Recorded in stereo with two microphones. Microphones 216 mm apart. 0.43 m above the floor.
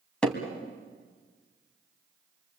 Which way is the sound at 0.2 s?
5° left (ahead or behind).